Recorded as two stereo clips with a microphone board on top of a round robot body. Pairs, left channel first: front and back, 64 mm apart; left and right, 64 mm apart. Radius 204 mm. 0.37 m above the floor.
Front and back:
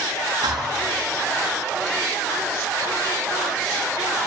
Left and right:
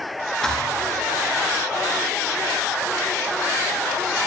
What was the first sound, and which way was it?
A thud, 170° left.